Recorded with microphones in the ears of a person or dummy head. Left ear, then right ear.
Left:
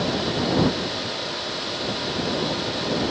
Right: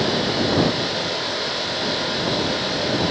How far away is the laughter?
I don't hear laughter.